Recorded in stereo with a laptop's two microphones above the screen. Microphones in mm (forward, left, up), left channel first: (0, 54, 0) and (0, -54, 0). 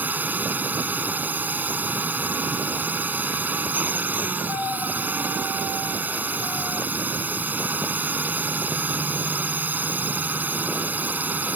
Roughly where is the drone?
Centre.